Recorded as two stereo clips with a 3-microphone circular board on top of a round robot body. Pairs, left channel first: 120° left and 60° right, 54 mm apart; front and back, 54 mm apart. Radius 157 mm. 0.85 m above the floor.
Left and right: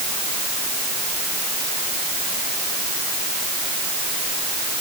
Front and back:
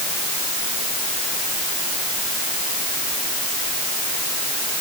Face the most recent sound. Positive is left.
No sound to turn to.